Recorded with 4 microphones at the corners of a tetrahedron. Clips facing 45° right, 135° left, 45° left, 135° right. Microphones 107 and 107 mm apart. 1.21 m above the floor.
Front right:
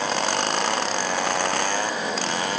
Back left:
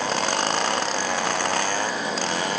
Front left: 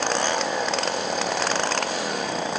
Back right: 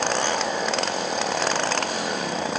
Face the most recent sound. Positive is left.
No sound to turn to.